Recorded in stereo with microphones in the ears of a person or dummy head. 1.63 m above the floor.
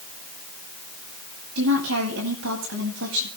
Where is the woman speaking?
85° right, 9 m.